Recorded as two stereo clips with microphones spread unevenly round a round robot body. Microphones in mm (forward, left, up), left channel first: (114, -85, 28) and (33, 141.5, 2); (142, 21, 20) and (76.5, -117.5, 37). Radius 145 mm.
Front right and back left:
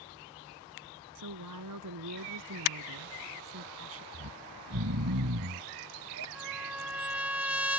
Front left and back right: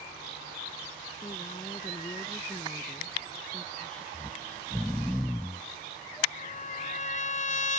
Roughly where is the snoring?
Behind left.